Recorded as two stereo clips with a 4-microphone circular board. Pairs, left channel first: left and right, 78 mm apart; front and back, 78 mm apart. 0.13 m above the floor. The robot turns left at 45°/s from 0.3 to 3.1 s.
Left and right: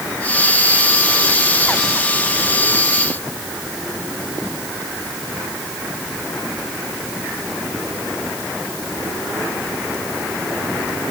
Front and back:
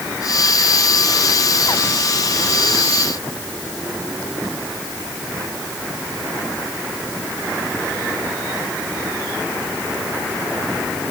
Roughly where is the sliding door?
No sliding door in this recording.